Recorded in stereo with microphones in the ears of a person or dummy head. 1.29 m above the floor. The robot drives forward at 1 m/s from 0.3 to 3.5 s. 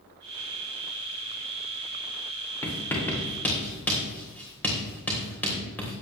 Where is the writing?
15° left (ahead or behind), 2 m; by 5.9 s 10° left (ahead or behind), 3 m.